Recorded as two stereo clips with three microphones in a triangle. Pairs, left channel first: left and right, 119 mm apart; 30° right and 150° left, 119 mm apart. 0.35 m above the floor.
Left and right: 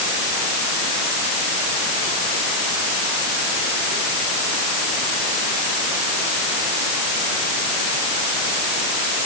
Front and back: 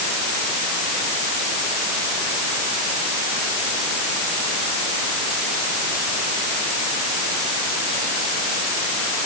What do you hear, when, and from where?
Only background noise.